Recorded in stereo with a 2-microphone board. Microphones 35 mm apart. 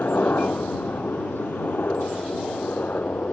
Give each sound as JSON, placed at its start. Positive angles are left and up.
{"t": 0.0, "sound": "a helicopter", "side_deg": 60}